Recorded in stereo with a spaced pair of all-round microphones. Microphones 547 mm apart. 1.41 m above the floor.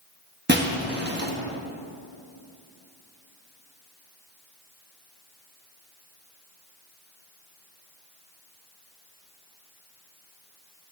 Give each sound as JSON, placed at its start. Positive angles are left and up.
{"t": 0.5, "sound": "breaking glass", "side_deg": -20, "distance_m": 0.7}